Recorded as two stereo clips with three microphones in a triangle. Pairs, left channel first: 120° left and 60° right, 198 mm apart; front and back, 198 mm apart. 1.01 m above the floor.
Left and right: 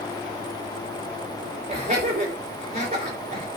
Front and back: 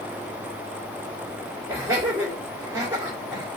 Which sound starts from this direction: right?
Laughter, at 1.7 s.